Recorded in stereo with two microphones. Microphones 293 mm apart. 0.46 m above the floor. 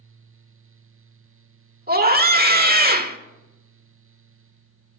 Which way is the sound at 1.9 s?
30° right (ahead or behind).